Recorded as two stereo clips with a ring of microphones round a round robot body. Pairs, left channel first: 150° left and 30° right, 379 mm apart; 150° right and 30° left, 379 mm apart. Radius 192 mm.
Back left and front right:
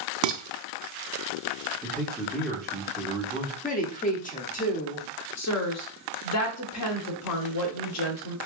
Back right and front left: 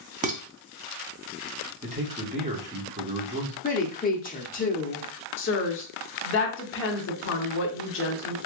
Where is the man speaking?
65° left, 1.2 m.